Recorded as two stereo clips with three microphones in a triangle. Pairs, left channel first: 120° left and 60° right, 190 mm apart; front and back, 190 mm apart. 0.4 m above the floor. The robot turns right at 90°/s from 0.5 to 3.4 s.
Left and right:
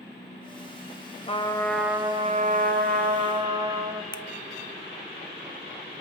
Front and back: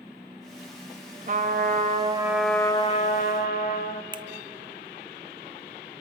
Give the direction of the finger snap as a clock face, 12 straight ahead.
7 o'clock.